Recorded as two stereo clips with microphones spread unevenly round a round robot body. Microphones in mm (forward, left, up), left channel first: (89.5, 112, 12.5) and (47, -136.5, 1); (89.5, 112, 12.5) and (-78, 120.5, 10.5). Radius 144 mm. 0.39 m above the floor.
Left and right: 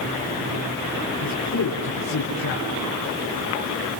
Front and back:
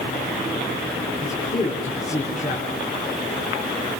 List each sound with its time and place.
1.2 s a man speaking: 45° left, 6.5 m